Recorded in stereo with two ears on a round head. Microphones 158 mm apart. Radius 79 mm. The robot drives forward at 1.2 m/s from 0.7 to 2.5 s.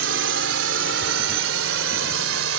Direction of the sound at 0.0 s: 75° right (ahead or behind).